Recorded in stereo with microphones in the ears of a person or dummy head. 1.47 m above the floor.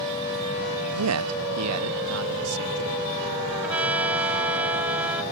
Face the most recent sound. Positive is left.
turn(degrees=-5)  # may be behind; listen again after turning